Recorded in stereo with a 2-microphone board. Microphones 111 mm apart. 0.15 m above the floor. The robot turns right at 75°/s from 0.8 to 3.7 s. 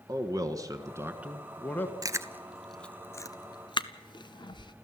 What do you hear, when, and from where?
0.1 s a man speaking: 50° right, 1.6 m; by 1.9 s 35° left, 1.6 m
2.0 s chewing: 30° right (ahead or behind), 0.7 m; by 4.7 s 45° left (ahead or behind), 0.7 m